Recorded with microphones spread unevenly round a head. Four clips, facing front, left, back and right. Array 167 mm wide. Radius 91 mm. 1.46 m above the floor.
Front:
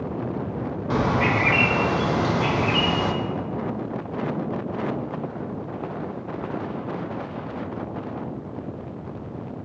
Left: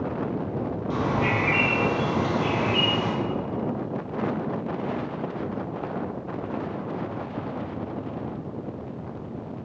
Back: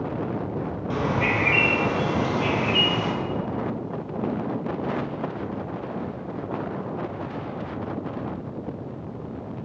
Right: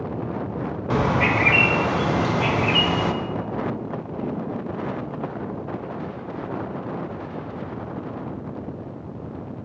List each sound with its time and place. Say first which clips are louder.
0.9 s a bird: right 5 dB, front 3 dB; 60° right, 0.9 m